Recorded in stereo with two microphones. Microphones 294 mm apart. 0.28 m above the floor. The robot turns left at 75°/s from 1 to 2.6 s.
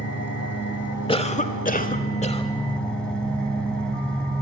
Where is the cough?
15° left (ahead or behind), 1.1 m.